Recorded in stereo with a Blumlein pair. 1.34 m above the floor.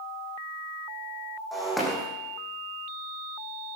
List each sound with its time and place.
1.5 s breaking glass: straight ahead, 5 m